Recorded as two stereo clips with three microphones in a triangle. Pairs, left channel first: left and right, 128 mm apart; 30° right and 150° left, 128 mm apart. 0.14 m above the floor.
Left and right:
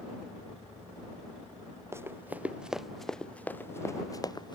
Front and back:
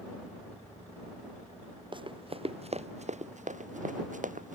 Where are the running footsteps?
160° right; by 4.5 s 145° left.